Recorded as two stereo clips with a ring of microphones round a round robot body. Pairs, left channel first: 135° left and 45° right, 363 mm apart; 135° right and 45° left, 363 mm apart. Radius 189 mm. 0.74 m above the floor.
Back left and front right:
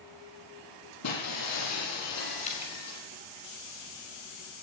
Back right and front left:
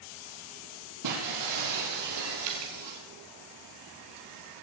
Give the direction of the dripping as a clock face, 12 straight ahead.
10 o'clock.